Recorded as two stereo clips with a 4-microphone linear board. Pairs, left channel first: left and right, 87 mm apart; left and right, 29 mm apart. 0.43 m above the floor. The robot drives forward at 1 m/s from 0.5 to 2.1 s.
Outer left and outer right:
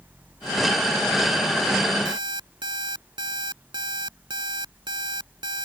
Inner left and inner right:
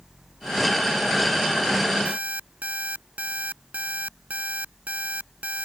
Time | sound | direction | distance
2.0 | an alarm clock | 60° right (ahead or behind) | ?